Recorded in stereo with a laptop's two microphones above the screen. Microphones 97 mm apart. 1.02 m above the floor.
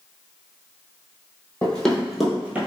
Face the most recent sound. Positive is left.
turn(degrees=-20)  # may be behind; listen again after turning